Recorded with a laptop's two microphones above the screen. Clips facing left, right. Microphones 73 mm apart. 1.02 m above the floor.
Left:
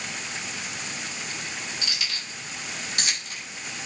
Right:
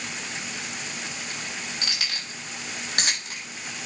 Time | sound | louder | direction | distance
1.8 | keys jangling | right 1 dB | 50° right (ahead or behind) | 5 m